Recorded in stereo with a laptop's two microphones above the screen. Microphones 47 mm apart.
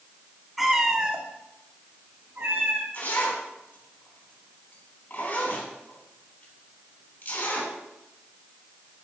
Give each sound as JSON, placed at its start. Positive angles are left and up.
{"t": 0.6, "sound": "a cat meowing", "side_deg": 0, "distance_m": 1.5}
{"t": 2.9, "sound": "a zipper", "side_deg": 45, "distance_m": 3.5}